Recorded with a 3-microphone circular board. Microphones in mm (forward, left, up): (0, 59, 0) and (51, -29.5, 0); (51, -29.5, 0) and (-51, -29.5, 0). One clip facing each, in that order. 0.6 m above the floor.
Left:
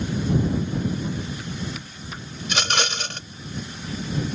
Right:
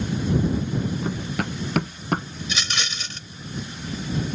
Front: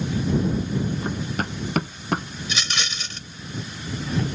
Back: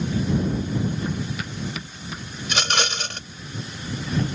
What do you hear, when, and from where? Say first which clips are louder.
1.0 s running footsteps: right 3 dB, front 1 dB; 45° right; by 2.2 s 25° right
2.4 s a rattle: left 5 dB, back 5 dB; 150° left